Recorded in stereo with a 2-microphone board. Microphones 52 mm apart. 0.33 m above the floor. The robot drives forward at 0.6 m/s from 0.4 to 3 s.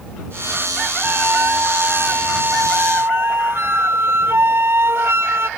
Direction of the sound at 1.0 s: 55° right (ahead or behind).